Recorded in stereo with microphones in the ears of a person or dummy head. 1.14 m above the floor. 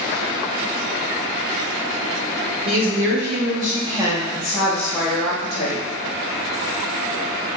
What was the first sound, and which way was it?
A woman speaking, 60° right (ahead or behind).